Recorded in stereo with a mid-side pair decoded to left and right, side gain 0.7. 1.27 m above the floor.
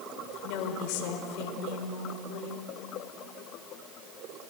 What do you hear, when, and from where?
0.4 s a woman speaking: 70° left, 5 m